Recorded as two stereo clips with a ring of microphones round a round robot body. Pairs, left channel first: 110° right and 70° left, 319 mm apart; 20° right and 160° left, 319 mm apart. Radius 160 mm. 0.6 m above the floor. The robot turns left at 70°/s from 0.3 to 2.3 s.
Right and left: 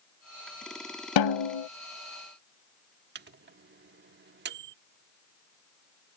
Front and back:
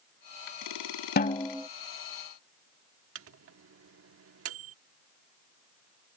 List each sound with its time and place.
1.2 s a snare drum: 85° right; by 1.7 s 120° right
3.1 s a microwave: 120° left